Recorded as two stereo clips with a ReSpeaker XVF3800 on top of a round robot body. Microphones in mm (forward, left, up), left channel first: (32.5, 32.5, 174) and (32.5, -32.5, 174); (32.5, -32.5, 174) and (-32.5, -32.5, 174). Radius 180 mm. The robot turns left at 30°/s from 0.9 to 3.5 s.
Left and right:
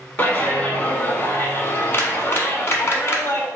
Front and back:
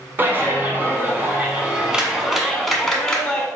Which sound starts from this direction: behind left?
A clap, at 0.2 s.